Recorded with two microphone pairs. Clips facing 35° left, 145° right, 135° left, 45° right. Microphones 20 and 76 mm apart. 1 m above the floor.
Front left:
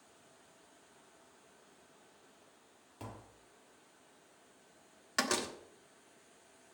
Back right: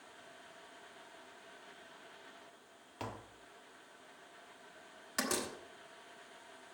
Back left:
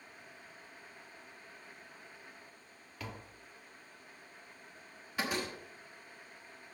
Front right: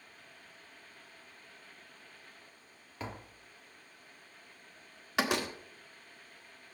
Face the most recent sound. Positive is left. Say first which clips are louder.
# front left 3 dB, front right 5 dB
turn(degrees=-35)